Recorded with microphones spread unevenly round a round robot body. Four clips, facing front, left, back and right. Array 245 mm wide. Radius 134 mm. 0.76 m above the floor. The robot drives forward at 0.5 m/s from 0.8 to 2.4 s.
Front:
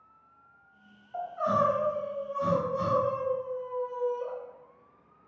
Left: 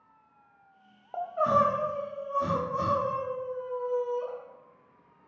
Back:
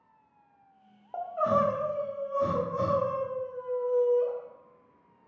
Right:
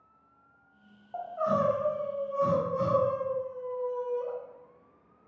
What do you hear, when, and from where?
1.1 s crying: 115° left, 0.6 m; by 4.3 s 145° left, 1.1 m